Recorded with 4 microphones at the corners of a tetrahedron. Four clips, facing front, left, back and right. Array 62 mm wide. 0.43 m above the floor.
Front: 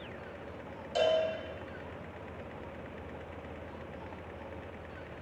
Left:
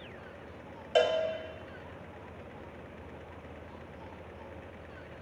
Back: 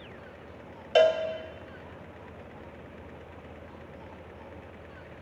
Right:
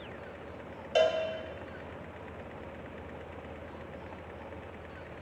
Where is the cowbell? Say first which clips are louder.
Even, back 7 dB; 165° left, 0.6 m.